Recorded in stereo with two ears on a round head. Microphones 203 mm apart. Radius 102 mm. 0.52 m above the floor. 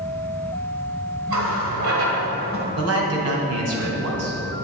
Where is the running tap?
65° right (ahead or behind), 1.8 m.